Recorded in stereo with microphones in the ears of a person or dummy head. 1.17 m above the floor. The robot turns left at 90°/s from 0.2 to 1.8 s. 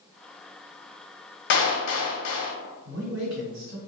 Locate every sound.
1.5 s a clap: 60° left (ahead or behind), 0.6 m; by 2.5 s 75° left (ahead or behind), 0.6 m
2.9 s a man speaking: 60° right (ahead or behind), 1.6 m